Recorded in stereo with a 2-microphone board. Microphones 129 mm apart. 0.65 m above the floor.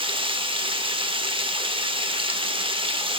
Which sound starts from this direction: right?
Running water, at 0.0 s.